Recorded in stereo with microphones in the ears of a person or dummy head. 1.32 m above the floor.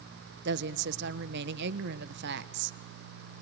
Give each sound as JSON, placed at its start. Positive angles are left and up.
{"t": 0.5, "sound": "a woman speaking", "side_deg": -65, "distance_m": 0.8}